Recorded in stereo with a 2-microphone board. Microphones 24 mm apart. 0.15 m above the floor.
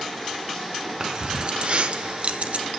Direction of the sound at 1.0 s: 30° right (ahead or behind).